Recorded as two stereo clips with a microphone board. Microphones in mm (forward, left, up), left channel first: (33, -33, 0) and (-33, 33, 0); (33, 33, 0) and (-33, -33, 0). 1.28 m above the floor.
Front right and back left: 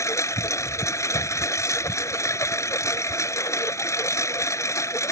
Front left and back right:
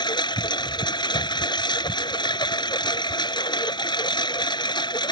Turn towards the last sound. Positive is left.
turn(degrees=10)